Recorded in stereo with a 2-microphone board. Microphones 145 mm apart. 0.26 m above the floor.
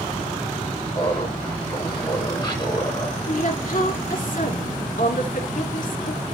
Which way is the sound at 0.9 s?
25° left (ahead or behind).